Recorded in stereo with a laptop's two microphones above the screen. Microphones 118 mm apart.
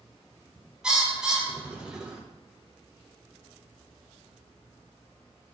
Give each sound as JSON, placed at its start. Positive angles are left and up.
{"t": 0.8, "sound": "a bird", "side_deg": -10, "distance_m": 0.8}